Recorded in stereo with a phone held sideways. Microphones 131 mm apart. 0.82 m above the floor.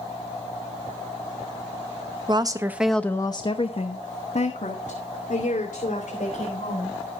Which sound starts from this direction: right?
A woman speaking, at 2.3 s.